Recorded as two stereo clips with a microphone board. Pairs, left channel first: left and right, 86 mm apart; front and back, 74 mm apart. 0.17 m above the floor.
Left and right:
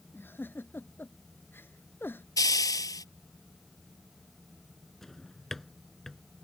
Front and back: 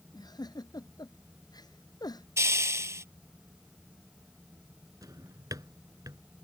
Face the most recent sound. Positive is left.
turn(degrees=175)